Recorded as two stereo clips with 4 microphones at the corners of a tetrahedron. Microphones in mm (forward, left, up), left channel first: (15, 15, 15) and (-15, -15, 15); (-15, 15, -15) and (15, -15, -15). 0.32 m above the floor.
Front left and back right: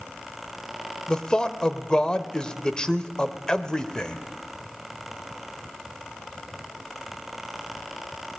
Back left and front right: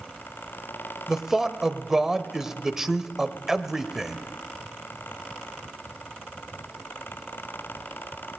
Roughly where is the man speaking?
Ahead.